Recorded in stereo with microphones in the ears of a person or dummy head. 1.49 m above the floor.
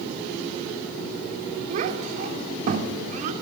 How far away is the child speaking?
About 2.5 m.